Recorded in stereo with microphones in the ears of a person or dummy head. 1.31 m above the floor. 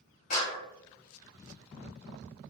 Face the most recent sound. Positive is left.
turn(degrees=50)  # may be behind; listen again after turning